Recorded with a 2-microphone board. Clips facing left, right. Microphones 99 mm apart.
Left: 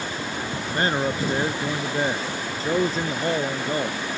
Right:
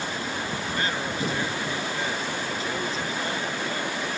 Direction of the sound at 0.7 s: 40° left (ahead or behind).